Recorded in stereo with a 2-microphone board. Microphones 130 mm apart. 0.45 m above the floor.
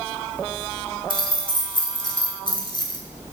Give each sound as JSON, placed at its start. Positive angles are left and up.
{"t": 1.1, "sound": "keys jangling", "side_deg": 40, "distance_m": 1.2}